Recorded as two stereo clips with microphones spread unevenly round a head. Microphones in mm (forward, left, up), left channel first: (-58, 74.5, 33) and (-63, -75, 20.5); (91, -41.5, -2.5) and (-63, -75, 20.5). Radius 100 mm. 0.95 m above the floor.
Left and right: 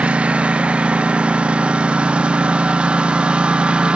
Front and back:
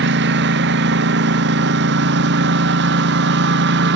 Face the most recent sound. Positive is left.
turn(degrees=-175)